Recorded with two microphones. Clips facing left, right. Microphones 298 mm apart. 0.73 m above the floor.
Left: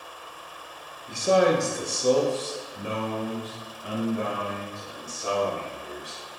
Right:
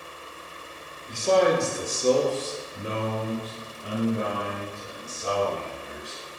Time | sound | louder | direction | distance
1.1 | a man speaking | even | 10° left (ahead or behind) | 0.9 m